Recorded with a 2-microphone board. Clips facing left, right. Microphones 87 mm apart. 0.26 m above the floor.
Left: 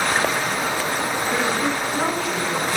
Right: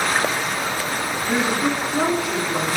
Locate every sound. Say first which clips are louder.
1.3 s a woman speaking: right 3 dB; 15° right (ahead or behind), 3 m